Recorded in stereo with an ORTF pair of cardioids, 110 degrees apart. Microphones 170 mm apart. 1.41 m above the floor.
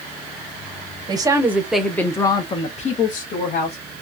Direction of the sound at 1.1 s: 25° right.